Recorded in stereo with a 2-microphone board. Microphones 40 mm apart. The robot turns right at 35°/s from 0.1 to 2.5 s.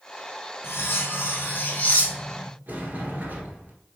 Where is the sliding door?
45° right (ahead or behind), 1.1 m.